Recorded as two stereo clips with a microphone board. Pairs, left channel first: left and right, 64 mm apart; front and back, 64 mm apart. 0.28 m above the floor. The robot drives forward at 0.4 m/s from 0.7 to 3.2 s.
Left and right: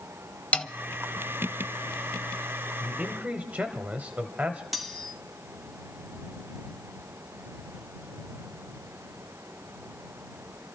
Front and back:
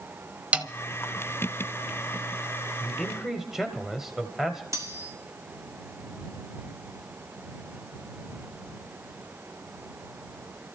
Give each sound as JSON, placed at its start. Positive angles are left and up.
{"t": 0.5, "sound": "a snare drum", "azimuth_deg": 135, "distance_m": 0.8}
{"t": 2.8, "sound": "a man speaking", "azimuth_deg": -85, "distance_m": 1.1}
{"t": 4.7, "sound": "cutlery clinking", "azimuth_deg": 180, "distance_m": 1.2}